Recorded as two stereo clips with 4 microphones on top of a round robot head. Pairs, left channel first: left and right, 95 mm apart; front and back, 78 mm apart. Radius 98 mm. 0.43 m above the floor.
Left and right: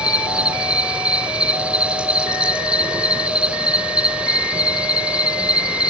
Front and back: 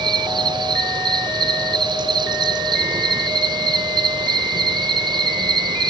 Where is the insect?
170° right, 1.5 m.